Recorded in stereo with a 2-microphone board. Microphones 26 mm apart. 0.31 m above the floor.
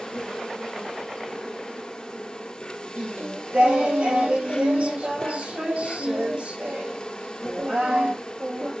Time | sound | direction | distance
0.0 | an insect | 40° left (ahead or behind) | 1.7 m
3.0 | singing | 65° right (ahead or behind) | 6 m